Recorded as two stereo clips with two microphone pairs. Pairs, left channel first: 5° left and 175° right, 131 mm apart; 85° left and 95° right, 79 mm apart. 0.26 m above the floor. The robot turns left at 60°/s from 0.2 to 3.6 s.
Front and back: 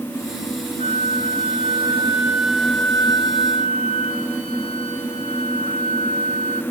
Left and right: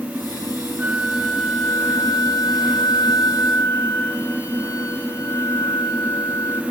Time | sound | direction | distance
0.8 | a flute | 155° right | 0.9 m